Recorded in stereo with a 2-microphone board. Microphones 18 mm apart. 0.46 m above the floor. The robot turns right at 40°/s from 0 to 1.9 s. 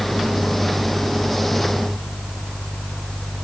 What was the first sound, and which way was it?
Only background noise.